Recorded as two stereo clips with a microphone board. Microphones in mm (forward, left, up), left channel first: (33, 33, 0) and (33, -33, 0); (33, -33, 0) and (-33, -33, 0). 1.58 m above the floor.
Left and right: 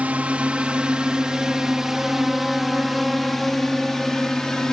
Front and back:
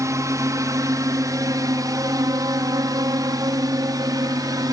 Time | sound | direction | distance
0.0 | a drone | 160° right | ?